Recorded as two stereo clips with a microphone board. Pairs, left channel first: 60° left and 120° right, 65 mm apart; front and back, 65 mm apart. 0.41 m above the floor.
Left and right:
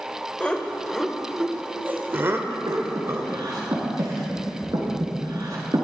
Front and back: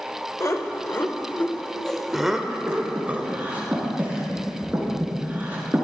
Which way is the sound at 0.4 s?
5° right.